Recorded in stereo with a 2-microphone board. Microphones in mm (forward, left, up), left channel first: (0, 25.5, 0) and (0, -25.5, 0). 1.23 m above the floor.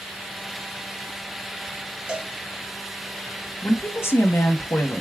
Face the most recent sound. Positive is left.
turn(degrees=55)  # may be behind; listen again after turning